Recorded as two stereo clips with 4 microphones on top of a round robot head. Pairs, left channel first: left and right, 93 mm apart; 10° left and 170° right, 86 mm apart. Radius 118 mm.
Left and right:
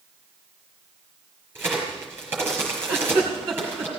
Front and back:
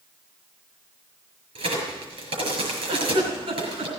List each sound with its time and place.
1.6 s a crack: 165° right, 6 m
2.9 s a giggle: 160° right, 3 m